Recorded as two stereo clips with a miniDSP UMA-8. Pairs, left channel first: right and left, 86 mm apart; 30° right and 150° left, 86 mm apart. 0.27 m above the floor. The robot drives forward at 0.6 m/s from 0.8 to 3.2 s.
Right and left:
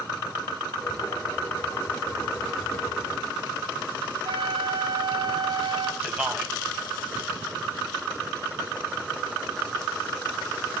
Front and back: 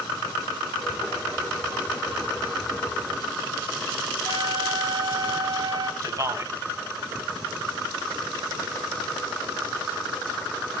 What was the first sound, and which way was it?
A flute, 110° left.